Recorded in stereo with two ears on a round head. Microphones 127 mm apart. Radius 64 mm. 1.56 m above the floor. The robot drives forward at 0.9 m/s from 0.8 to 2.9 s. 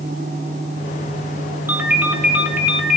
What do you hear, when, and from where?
1.7 s a ringtone: 15° right (ahead or behind), 1.2 m; by 3.0 s 10° right (ahead or behind), 2 m